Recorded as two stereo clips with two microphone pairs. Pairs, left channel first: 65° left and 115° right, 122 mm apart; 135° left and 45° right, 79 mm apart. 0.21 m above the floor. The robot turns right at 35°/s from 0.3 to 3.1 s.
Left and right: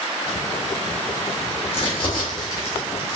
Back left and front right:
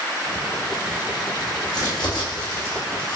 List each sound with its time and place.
1.7 s crumpling: 95° left, 1.8 m; by 3.2 s 145° left, 1.8 m